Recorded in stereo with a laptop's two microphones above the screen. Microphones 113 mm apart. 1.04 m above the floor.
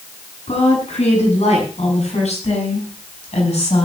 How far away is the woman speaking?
About 9.5 m.